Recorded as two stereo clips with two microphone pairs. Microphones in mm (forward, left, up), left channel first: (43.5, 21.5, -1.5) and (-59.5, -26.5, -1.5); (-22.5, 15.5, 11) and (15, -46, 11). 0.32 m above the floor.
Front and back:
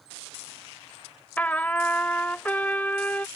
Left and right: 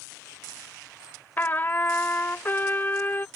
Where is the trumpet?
90° left.